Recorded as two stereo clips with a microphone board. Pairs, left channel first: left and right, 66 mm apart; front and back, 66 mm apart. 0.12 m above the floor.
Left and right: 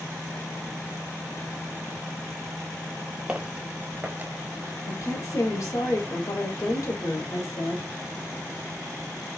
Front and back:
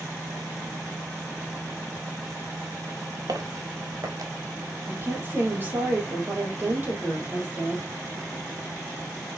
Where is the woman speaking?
120° left, 3.5 m.